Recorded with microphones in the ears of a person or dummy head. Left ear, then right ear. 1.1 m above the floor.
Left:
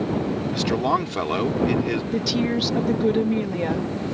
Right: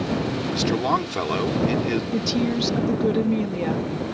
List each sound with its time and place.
0.5 s a man speaking: 5° left (ahead or behind)
2.1 s a woman speaking: 10° left (ahead or behind)